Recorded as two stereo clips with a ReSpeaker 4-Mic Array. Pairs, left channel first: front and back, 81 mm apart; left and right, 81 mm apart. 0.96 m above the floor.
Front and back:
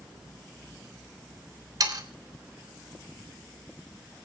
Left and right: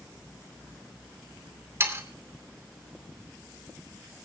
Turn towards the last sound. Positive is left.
turn(degrees=-145)